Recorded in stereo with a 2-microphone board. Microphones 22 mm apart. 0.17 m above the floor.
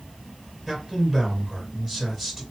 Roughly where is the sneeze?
No sneeze in this recording.